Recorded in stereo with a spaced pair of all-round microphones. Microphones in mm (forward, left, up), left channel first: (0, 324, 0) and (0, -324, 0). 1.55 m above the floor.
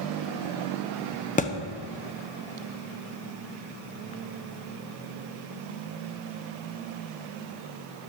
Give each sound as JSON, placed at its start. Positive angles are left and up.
{"t": 1.4, "sound": "a thud", "side_deg": 10, "distance_m": 0.9}